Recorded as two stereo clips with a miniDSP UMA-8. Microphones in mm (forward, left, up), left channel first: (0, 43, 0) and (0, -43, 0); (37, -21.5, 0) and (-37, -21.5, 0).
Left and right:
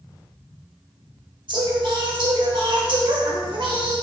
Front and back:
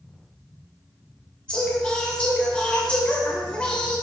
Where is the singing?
75° right, 2.5 m.